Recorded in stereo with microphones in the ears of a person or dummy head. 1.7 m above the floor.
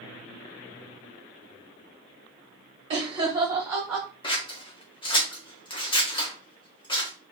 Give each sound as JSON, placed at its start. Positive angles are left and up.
{"t": 2.9, "sound": "laughter", "side_deg": -30, "distance_m": 1.0}
{"t": 4.2, "sound": "scissors", "side_deg": 30, "distance_m": 0.7}